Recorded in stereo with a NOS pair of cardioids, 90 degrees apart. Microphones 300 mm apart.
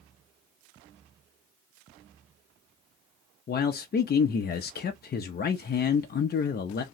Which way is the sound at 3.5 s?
35° left.